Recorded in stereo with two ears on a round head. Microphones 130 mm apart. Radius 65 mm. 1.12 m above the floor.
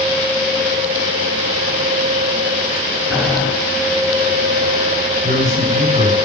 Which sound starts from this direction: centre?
Boiling, at 3.1 s.